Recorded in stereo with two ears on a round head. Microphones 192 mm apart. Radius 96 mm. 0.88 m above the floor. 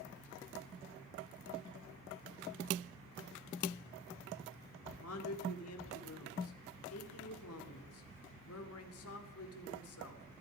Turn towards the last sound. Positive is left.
turn(degrees=80)